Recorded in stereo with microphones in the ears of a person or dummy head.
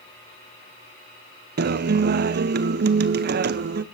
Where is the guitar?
50° right (ahead or behind), 0.6 m.